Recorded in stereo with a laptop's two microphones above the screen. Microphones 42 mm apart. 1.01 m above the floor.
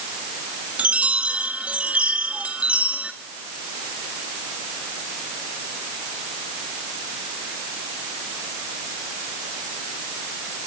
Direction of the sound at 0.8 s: 30° right (ahead or behind).